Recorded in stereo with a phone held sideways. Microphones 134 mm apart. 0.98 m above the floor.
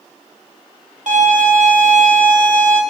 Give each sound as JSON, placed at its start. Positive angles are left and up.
{"t": 1.1, "sound": "a violin", "side_deg": -70, "distance_m": 0.6}